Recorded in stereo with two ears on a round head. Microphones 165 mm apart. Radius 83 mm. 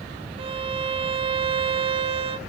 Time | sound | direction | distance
0.4 | a violin | 30° right (ahead or behind) | 0.6 m